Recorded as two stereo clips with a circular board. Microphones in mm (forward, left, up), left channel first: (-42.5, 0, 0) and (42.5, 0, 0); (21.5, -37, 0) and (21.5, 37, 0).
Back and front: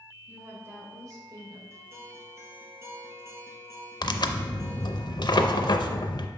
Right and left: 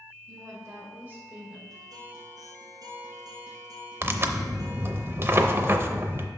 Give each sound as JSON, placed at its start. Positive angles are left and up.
{"t": 0.3, "sound": "a woman speaking", "azimuth_deg": 65, "distance_m": 2.5}
{"t": 1.7, "sound": "a guitar", "azimuth_deg": 60, "distance_m": 1.8}
{"t": 4.0, "sound": "tearing paper", "azimuth_deg": 145, "distance_m": 0.5}